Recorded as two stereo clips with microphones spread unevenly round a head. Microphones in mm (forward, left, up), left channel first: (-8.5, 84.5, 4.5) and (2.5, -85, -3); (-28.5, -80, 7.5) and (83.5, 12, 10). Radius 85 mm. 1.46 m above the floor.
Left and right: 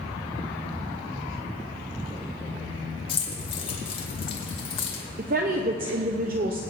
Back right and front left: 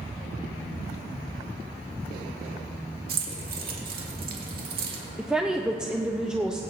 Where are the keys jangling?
35° left, 1.9 m.